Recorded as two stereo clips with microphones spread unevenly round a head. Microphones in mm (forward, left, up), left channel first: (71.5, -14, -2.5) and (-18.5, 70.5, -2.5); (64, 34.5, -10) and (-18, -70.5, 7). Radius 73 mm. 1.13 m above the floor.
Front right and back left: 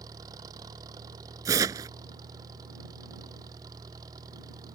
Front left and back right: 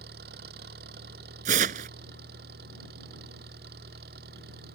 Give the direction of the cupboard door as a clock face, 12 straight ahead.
No cupboard door in this recording.